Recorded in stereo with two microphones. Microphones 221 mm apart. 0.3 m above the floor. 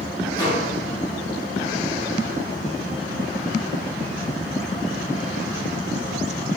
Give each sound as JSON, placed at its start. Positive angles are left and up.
{"t": 0.3, "sound": "a microwave", "side_deg": 20, "distance_m": 1.3}